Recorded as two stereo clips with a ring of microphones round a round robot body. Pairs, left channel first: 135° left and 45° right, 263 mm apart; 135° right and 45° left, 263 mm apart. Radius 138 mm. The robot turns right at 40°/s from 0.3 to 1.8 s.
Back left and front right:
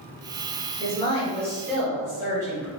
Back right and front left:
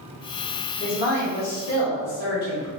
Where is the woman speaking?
Straight behind, 1.4 m; by 2.7 s 140° right, 1.4 m.